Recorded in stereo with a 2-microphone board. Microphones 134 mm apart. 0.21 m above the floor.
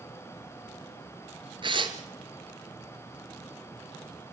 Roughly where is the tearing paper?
Right.